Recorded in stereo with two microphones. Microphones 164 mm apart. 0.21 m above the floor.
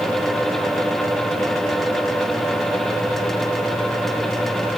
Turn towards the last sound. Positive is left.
No sound to turn to.